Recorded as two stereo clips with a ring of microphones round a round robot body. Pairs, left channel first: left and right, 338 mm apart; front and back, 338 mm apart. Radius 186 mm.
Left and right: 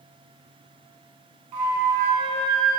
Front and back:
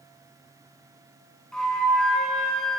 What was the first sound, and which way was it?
A flute, 90° right.